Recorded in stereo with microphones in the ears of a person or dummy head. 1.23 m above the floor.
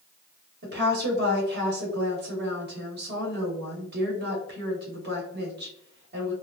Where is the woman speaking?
60° right (ahead or behind), 1.4 m.